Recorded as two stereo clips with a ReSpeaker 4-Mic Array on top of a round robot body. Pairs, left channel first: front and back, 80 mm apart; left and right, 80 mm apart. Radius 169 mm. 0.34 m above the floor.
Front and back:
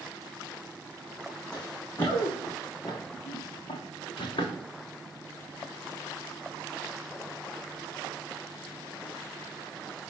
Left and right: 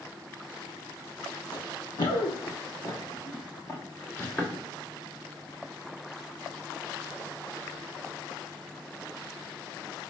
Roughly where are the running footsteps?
Left.